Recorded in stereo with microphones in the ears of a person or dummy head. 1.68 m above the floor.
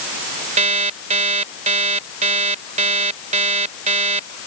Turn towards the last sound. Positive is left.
turn(degrees=-35)  # may be behind; listen again after turning